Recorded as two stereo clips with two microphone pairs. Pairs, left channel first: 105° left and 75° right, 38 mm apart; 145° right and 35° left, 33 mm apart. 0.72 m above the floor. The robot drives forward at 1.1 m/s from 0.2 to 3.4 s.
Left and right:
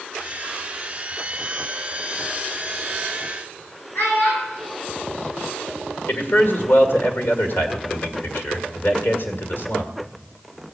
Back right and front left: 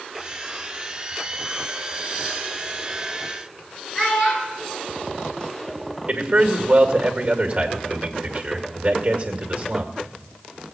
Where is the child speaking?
145° left, 6.5 m.